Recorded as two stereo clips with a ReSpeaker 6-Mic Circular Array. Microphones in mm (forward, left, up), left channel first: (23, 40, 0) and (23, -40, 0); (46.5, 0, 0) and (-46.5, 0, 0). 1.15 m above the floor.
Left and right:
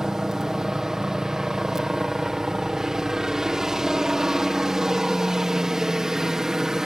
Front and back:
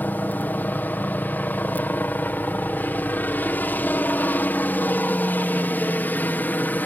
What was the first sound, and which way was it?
A helicopter, 20° right.